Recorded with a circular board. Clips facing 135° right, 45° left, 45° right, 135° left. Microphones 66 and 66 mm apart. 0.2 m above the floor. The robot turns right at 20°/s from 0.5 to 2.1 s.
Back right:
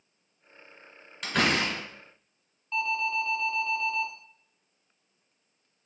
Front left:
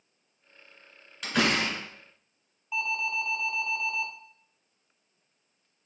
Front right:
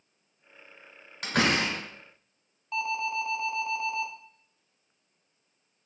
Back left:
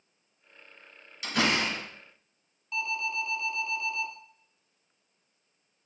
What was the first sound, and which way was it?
A door slam, 45° right.